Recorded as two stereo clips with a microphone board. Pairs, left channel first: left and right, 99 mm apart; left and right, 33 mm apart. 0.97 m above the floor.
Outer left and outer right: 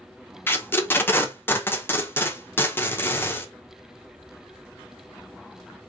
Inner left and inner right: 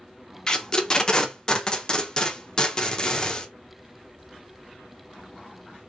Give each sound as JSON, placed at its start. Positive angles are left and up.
{"t": 0.5, "sound": "tape being pulled", "side_deg": 20, "distance_m": 0.6}